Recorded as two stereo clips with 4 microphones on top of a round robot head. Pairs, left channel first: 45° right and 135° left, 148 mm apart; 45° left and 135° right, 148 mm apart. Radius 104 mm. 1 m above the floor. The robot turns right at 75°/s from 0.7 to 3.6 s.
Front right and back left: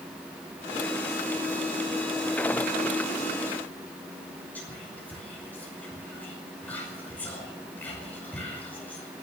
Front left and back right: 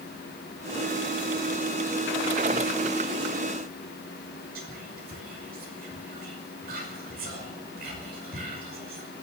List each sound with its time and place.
4.5 s whispering: 125° right, 5.5 m